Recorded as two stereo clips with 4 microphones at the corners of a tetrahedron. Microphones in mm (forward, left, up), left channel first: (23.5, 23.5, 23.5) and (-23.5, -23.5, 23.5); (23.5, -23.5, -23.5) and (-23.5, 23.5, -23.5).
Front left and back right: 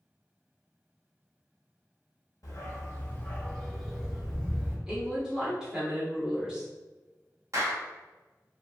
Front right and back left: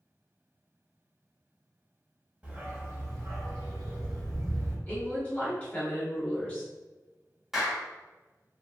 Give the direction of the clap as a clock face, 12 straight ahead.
5 o'clock.